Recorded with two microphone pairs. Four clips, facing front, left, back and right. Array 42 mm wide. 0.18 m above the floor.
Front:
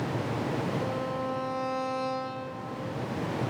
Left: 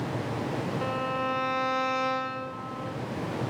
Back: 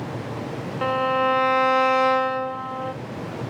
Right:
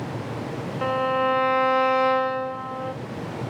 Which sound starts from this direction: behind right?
A violin, at 0.8 s.